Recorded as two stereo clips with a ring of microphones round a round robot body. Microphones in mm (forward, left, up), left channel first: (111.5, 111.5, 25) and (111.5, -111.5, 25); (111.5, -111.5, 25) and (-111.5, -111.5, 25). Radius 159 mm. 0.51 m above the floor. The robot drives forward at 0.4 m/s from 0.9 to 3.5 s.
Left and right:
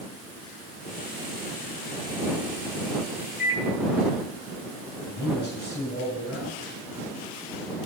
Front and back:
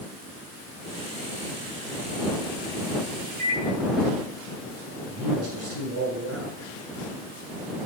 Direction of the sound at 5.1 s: 170° left.